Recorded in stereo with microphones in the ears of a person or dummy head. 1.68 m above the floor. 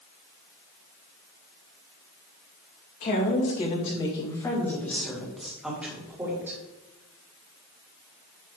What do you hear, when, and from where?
3.0 s a woman speaking: 40° left (ahead or behind), 2.5 m; by 6.6 s 15° right (ahead or behind), 3 m